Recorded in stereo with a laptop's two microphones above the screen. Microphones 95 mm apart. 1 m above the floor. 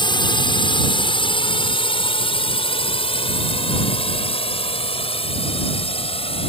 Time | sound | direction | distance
0.0 | a drone | 55° left (ahead or behind) | ?